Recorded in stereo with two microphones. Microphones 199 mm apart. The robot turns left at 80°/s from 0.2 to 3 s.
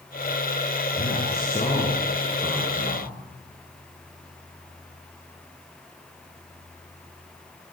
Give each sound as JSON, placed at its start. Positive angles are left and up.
{"t": 0.9, "sound": "a man speaking", "azimuth_deg": 90, "distance_m": 7.5}